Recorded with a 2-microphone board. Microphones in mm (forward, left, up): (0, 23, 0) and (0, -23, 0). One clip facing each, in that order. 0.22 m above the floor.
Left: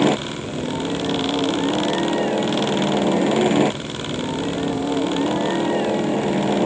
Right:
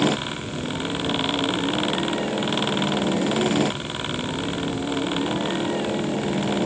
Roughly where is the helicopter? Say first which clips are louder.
Left 4 dB; left.